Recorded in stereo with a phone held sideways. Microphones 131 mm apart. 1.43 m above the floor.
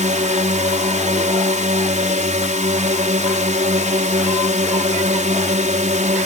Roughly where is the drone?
Right.